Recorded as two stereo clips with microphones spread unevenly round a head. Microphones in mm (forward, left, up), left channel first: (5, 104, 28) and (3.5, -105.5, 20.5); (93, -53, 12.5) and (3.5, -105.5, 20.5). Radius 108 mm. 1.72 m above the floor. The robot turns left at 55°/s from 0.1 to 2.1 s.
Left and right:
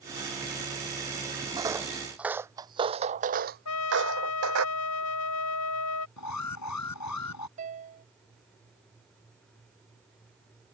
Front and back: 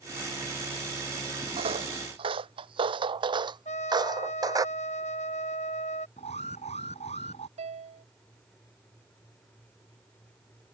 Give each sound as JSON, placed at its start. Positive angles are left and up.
{"t": 1.6, "sound": "footsteps", "azimuth_deg": -160}
{"t": 3.6, "sound": "a trumpet", "azimuth_deg": 85}
{"t": 6.2, "sound": "an alarm", "azimuth_deg": 90}
{"t": 7.6, "sound": "a piano", "azimuth_deg": -145}